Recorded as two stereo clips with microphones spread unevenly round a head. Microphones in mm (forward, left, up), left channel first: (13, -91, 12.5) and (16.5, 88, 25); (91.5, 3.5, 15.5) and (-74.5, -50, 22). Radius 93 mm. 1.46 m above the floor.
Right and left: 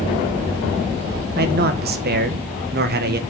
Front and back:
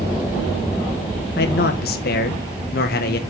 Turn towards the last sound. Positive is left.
turn(degrees=55)